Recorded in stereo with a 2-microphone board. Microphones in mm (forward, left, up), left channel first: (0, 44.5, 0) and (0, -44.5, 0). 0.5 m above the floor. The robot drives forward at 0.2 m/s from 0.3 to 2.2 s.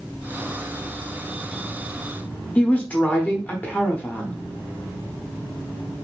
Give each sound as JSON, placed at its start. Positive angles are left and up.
{"t": 2.5, "sound": "a woman speaking", "side_deg": 20, "distance_m": 0.7}